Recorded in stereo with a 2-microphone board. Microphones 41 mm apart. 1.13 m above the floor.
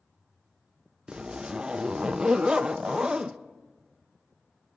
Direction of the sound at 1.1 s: 20° right (ahead or behind).